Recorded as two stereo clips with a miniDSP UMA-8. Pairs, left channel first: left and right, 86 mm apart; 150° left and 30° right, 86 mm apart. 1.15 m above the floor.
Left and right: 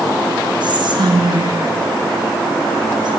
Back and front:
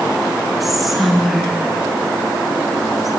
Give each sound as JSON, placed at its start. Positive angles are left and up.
{"t": 0.6, "sound": "whispering", "azimuth_deg": -120, "distance_m": 1.1}